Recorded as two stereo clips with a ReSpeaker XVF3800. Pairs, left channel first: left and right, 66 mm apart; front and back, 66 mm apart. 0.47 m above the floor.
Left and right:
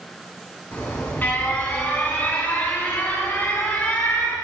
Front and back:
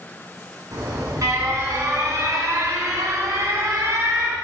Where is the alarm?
150° left, 6 m.